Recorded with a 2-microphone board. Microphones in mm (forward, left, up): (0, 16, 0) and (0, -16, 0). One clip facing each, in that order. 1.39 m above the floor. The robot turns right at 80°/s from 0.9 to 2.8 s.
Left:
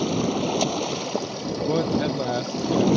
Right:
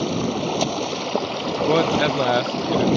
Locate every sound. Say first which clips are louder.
0.0 s running water: right 1 dB; 165° right; by 3.0 s 15° right
1.7 s a man speaking: right 5 dB; 120° right; by 2.9 s 30° right